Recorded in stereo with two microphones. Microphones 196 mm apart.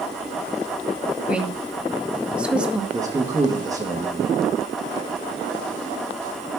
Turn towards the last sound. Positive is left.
turn(degrees=-20)  # may be behind; listen again after turning